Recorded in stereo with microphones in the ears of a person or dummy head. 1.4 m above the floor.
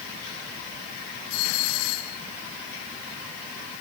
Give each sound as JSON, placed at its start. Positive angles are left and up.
{"t": 1.3, "sound": "a doorbell", "side_deg": 80}